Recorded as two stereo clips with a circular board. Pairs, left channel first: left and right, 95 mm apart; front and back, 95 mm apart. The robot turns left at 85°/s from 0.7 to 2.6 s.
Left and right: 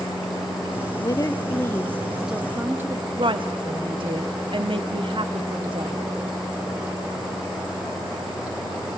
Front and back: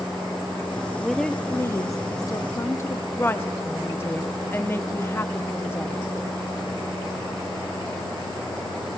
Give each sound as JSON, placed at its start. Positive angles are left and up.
{"t": 1.0, "sound": "a woman speaking", "azimuth_deg": 100, "distance_m": 0.6}
{"t": 3.2, "sound": "a woman speaking", "azimuth_deg": -65, "distance_m": 1.1}